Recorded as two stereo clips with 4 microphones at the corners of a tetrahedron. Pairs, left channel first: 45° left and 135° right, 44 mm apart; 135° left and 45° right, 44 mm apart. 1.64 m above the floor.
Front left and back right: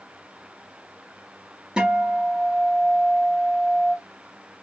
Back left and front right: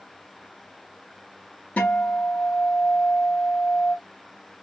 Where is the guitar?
170° left, 1.3 m.